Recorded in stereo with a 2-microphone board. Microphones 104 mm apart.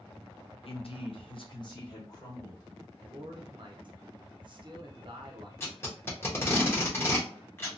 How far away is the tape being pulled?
About 0.9 m.